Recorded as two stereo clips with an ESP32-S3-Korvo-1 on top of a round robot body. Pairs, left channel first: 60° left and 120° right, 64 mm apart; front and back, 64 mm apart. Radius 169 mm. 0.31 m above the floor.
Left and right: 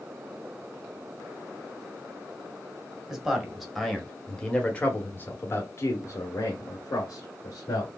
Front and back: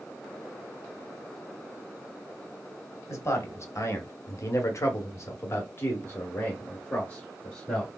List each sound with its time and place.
3.1 s a man speaking: 40° right, 1.6 m; by 7.9 s 75° left, 1.8 m